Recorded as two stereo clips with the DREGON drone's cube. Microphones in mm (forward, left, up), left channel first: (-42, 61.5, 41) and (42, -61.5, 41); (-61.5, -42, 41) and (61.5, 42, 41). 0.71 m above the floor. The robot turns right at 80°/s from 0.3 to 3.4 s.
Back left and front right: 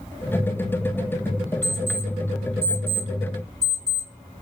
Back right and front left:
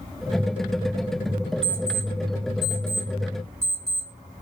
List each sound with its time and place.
1.6 s an alarm clock: 30° left, 1.6 m; by 4.4 s 175° left, 1.6 m